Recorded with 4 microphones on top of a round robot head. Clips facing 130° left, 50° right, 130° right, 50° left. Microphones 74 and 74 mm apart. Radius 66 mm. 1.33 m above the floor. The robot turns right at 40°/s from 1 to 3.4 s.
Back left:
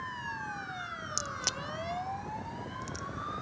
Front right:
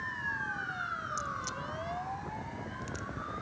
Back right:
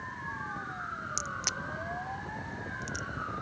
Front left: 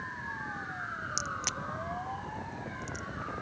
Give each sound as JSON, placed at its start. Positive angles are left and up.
{"t": 1.2, "sound": "a crack", "azimuth_deg": 130}